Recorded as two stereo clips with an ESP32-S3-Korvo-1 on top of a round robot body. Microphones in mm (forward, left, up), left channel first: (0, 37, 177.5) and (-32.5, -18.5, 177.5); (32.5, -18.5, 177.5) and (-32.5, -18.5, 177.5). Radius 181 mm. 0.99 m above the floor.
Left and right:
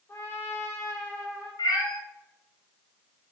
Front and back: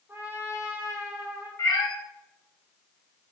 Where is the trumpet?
120° left, 3 m.